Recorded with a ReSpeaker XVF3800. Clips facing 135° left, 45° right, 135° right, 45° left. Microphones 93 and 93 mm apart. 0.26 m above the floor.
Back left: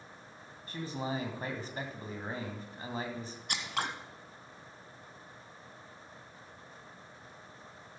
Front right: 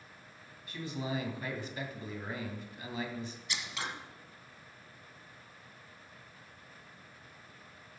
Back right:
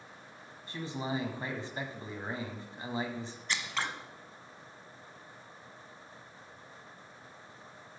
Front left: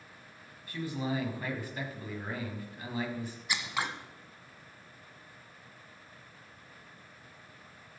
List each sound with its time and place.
0.7 s a man speaking: 170° left, 2.0 m
3.5 s scissors: 120° left, 1.0 m